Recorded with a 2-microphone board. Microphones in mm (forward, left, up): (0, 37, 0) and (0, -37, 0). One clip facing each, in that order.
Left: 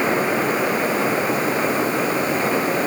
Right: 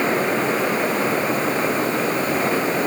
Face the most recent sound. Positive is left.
No sound to turn to.